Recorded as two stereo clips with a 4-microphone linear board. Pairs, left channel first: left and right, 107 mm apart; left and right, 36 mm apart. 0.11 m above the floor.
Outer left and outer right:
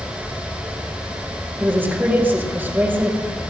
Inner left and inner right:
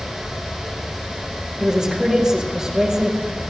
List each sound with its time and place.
1.6 s a woman speaking: 20° right (ahead or behind), 4 m